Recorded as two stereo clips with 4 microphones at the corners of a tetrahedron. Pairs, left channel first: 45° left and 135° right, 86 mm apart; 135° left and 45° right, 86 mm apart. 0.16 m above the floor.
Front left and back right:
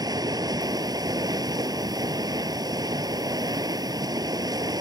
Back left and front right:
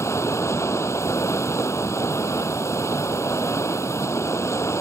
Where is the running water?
175° right.